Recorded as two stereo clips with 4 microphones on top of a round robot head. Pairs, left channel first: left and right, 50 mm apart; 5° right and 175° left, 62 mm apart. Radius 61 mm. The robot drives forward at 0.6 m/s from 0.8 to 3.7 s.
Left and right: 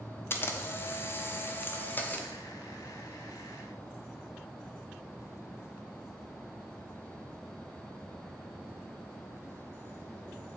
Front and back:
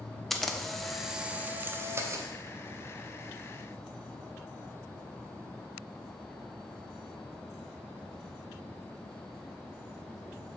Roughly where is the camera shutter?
Left.